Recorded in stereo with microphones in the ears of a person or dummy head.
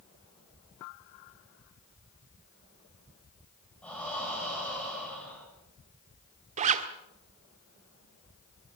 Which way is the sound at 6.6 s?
35° right (ahead or behind).